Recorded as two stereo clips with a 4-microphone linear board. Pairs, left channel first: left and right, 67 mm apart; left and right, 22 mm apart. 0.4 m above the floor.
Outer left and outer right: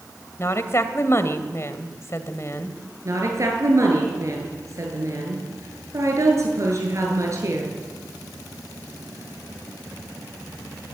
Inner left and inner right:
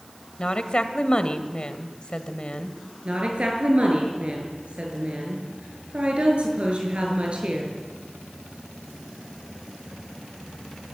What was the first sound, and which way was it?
A woman speaking, 45° left (ahead or behind).